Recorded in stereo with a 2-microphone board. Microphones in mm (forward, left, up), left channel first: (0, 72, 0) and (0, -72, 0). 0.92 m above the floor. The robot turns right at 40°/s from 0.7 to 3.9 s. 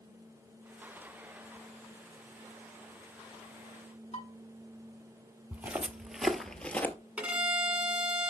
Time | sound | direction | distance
4.1 | dishes clattering | 55° left (ahead or behind) | 5 m
5.5 | footsteps | 15° right (ahead or behind) | 1.1 m
7.2 | a violin | 10° right (ahead or behind) | 1.8 m